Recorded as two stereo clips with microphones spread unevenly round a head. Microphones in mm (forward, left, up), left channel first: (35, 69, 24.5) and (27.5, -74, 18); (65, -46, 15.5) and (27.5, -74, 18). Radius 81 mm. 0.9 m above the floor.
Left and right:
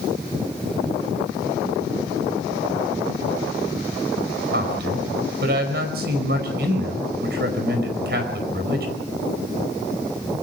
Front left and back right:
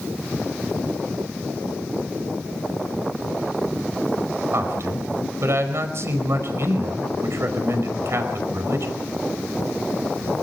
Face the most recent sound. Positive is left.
turn(degrees=-120)